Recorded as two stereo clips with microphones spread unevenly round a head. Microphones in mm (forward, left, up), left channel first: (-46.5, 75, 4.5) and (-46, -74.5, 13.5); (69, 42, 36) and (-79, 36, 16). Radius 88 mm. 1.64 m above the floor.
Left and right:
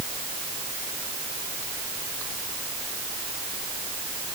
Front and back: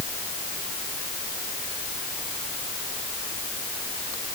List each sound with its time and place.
Only background noise.